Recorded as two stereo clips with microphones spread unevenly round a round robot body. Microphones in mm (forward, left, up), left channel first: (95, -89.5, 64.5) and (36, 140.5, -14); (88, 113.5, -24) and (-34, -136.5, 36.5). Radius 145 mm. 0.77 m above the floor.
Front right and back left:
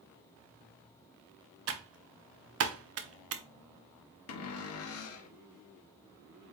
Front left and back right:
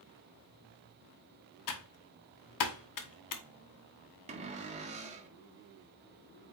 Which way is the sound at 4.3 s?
45° right.